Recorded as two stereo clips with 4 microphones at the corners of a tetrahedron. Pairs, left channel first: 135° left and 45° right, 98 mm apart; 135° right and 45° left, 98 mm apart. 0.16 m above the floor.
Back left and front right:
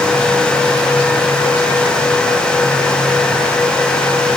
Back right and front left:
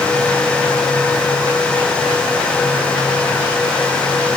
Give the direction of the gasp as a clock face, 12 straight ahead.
No gasp in this recording.